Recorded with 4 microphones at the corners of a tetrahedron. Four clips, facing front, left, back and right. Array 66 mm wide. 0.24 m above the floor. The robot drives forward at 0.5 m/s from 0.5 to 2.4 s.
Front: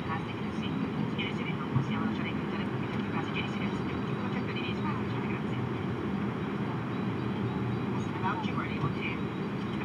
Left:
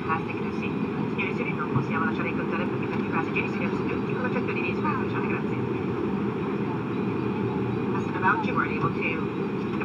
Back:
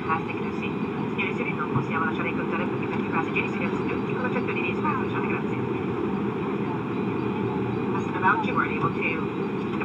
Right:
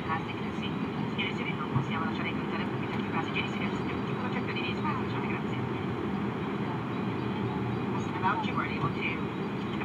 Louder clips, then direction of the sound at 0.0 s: Left 5 dB, back 8 dB; 150° left.